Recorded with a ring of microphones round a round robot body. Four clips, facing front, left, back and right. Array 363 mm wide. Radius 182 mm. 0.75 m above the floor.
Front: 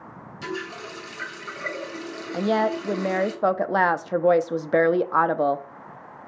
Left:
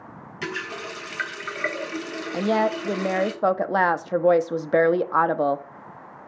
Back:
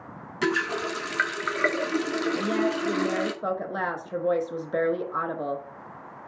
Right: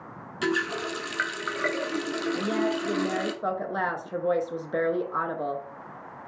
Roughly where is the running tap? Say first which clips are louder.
Right 5 dB, back 7 dB; behind.